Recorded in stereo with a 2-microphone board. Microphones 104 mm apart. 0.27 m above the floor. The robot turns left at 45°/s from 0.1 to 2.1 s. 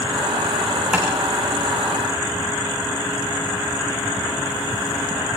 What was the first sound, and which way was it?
Tapping, 5° right (ahead or behind).